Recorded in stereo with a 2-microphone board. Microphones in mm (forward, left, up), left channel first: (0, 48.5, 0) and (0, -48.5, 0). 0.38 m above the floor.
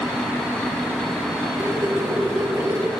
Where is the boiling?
30° right (ahead or behind), 2.5 m.